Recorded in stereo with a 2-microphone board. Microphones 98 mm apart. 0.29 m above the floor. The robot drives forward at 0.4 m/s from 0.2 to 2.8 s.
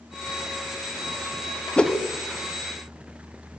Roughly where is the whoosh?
Centre.